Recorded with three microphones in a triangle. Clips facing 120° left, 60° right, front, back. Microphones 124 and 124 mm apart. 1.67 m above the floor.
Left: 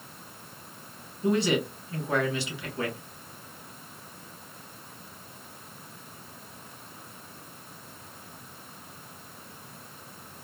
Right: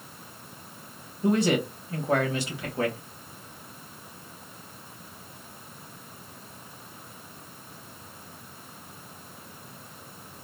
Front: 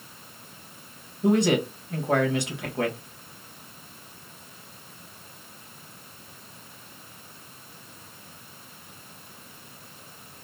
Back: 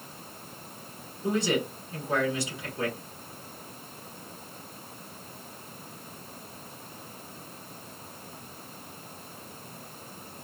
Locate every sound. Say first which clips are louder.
1.2 s a man speaking: right 2 dB, front 6 dB; 15° right, 1.5 m